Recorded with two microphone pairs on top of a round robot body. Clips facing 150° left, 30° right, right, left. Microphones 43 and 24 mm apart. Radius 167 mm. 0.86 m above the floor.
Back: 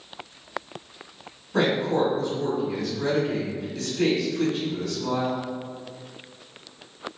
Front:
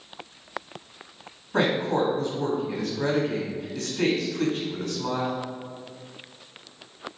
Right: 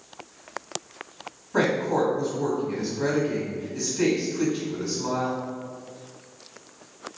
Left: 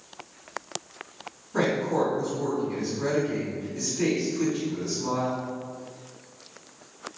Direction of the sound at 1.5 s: 45° right.